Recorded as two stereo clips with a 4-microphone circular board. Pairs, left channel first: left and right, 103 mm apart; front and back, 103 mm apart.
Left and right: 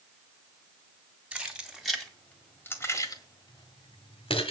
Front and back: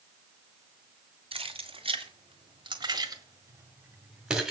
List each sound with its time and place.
1.3 s keys jangling: 170° right, 2 m; by 4.5 s 95° left, 1.9 m